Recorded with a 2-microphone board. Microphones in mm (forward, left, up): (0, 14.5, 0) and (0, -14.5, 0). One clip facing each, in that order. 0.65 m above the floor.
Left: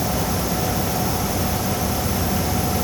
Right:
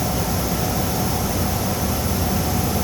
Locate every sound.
Only background noise.